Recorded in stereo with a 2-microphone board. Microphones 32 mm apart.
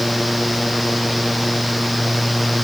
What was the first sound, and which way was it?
Only background noise.